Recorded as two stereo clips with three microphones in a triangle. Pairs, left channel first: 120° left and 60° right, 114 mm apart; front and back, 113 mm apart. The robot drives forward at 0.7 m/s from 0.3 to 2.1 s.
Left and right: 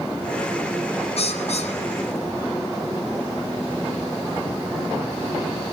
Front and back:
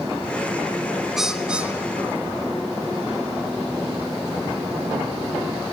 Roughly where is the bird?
Left.